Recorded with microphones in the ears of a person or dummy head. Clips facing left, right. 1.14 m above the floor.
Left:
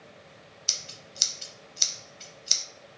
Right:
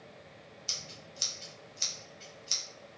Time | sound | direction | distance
0.7 | scissors | 65° left (ahead or behind) | 1.0 m